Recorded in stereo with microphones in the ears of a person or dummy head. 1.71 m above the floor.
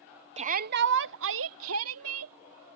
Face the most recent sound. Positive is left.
turn(degrees=-80)